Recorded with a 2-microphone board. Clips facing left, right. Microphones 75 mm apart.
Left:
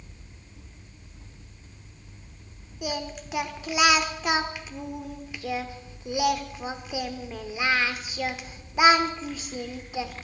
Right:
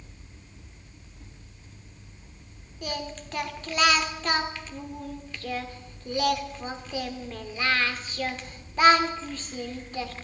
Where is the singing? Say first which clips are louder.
Left 2 dB; 10° left (ahead or behind), 0.9 m.